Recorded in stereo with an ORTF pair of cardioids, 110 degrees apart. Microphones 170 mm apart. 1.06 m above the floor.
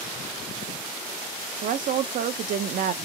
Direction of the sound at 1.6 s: 55° right.